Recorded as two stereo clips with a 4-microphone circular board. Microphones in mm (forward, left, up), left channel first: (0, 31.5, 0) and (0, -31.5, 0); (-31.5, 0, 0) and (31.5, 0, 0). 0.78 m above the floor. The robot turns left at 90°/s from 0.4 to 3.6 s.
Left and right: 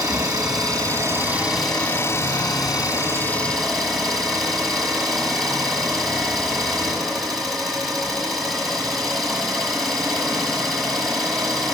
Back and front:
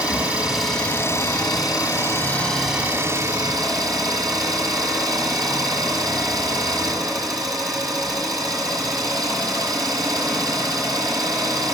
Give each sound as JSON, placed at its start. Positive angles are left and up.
{"t": 0.0, "sound": "an engine running", "azimuth_deg": -70, "distance_m": 6.0}